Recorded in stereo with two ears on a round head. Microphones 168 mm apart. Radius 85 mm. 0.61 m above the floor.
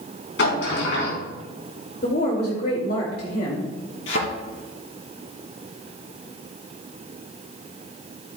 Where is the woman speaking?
55° left (ahead or behind), 2.5 m.